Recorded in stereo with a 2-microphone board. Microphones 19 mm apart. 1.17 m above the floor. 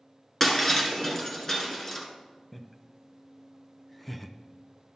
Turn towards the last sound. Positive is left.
turn(degrees=5)  # may be behind; listen again after turning